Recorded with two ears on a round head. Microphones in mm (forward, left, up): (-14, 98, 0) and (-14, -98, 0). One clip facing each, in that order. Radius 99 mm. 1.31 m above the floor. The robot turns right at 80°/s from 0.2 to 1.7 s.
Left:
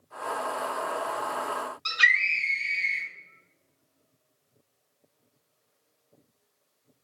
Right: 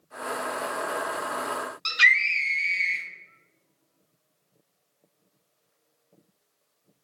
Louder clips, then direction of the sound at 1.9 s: Right 2 dB; 30° right (ahead or behind).